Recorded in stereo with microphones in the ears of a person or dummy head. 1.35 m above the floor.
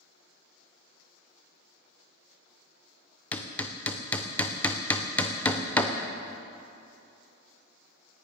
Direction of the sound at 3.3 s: 5° left (ahead or behind).